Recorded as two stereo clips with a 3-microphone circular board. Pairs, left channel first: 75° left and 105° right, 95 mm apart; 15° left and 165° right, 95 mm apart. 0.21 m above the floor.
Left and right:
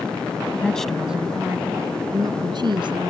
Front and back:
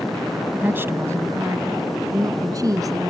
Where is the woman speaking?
135° left; by 3.1 s 120° right.